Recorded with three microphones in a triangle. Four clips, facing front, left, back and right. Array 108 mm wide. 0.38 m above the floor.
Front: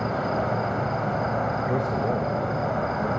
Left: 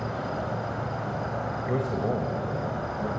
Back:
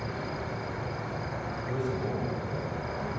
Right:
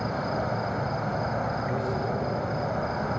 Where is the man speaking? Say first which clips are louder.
Left 1 dB, front 7 dB; 40° left, 2 m.